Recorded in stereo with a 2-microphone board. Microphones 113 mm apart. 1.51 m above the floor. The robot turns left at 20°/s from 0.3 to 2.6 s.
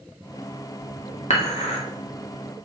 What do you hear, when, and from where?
1.3 s dishes clattering: 70° left (ahead or behind), 2 m; by 1.8 s 65° left (ahead or behind), 2 m